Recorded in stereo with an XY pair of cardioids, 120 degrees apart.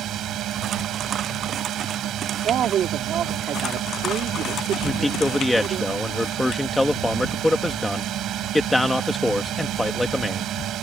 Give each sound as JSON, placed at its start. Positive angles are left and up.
{"t": 0.0, "sound": "a drone", "azimuth_deg": -65}
{"t": 2.4, "sound": "a man speaking", "azimuth_deg": -55}
{"t": 4.8, "sound": "a man speaking", "azimuth_deg": 5}